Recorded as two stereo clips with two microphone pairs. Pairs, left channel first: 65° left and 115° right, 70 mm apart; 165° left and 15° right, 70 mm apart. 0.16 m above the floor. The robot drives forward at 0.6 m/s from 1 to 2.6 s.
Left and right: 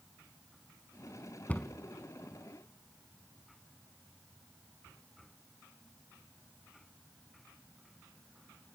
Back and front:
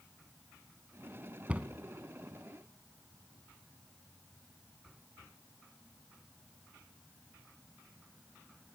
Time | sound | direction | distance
1.5 | a cupboard door | 35° left | 0.9 m